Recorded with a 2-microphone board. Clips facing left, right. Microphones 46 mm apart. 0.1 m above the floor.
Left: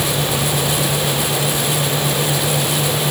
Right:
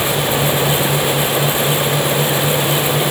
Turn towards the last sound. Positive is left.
No sound to turn to.